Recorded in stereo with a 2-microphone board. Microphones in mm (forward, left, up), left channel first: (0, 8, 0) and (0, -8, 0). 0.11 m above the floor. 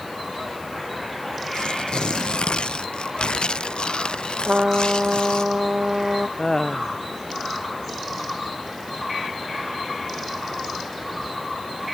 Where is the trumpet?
60° right (ahead or behind).